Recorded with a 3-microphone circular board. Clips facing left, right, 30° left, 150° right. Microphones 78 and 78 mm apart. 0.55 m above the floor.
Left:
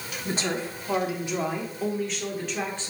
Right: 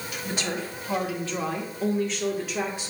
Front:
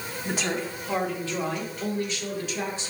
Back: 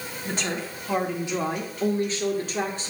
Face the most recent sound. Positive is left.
turn(degrees=-165)